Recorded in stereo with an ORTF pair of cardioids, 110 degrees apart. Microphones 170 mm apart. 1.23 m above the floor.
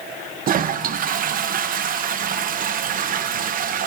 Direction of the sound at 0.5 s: 50° right.